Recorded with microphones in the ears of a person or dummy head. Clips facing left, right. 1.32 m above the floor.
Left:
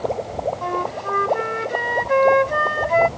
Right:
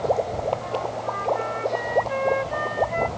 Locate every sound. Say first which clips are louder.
0.6 s a flute: left 2 dB; 65° left (ahead or behind)